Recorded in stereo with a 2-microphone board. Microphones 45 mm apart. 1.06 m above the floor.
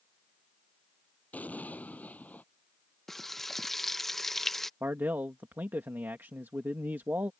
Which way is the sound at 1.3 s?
35° left (ahead or behind).